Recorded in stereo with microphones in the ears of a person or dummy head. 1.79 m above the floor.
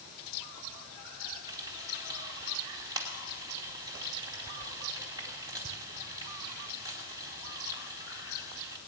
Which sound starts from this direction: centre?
Frying, at 1.5 s.